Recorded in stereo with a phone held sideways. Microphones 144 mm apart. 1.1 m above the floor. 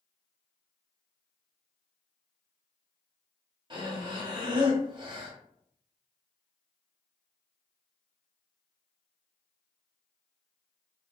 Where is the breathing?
35° right (ahead or behind), 1.1 m.